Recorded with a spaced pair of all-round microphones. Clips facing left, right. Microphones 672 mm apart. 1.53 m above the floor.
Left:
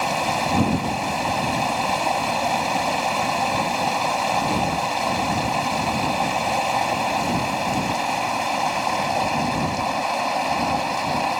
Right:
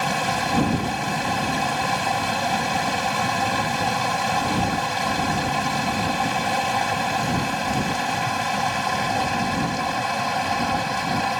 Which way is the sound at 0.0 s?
40° right (ahead or behind).